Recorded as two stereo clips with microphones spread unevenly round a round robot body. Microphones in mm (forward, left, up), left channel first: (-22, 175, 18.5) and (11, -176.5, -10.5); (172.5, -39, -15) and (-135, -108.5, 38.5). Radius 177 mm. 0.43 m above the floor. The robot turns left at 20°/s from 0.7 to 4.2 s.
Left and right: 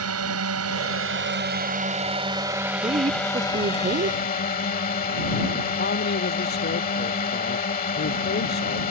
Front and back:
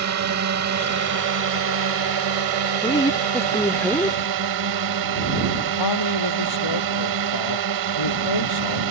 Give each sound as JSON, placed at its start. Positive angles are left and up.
{"t": 0.0, "sound": "a drone", "azimuth_deg": -130}
{"t": 2.8, "sound": "a woman speaking", "azimuth_deg": -30}
{"t": 5.8, "sound": "a man speaking", "azimuth_deg": 30}